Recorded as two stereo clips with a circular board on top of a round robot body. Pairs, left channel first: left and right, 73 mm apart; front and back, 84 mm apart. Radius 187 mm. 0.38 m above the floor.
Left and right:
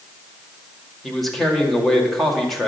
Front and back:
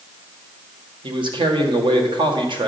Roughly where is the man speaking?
Behind.